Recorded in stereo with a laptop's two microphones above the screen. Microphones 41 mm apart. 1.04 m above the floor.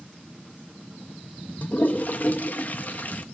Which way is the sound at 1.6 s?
45° left (ahead or behind).